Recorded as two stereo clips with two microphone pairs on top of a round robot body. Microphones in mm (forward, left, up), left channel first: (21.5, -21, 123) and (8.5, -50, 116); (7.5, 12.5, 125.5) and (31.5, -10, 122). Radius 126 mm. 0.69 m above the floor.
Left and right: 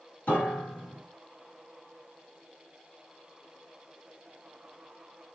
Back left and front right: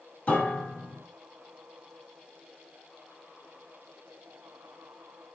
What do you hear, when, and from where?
0.3 s a piano: 105° left, 3.5 m